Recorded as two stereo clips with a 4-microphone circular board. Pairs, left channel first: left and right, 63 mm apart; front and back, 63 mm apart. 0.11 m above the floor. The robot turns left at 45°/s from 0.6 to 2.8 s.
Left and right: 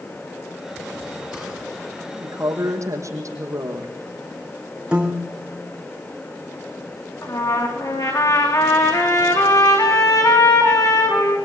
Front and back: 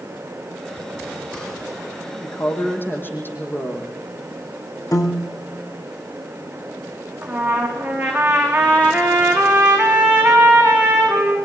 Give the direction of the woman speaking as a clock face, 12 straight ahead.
1 o'clock.